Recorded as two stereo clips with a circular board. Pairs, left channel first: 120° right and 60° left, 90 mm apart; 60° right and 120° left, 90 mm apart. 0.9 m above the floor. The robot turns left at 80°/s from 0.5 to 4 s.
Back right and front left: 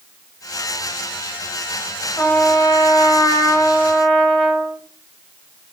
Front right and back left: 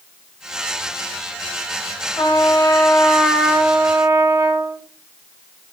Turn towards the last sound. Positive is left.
turn(degrees=155)